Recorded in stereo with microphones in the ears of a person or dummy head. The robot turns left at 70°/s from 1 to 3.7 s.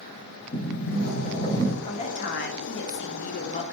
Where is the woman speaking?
155° left, 0.9 m; by 3.6 s 30° left, 0.9 m.